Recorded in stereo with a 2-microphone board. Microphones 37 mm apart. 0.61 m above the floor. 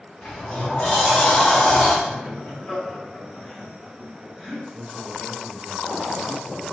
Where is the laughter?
10° left (ahead or behind), 1.6 m.